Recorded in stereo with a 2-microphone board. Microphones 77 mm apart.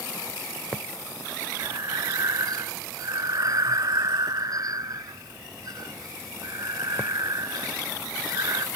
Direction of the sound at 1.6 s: 55° right (ahead or behind).